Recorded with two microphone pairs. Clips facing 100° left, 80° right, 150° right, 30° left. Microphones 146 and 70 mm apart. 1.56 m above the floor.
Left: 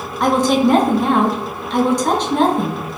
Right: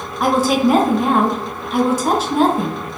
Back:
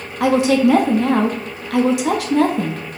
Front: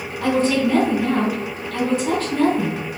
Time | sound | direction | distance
0.2 | a woman speaking | 155° right | 0.6 m